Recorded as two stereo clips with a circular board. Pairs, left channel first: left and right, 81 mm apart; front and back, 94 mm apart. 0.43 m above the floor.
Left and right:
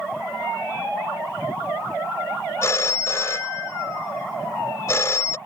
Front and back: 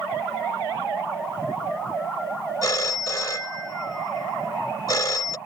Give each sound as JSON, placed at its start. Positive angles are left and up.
{"t": 2.6, "sound": "a phone ringing", "azimuth_deg": 40}